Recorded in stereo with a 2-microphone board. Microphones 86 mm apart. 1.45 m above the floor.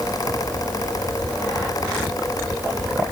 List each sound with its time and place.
Only background noise.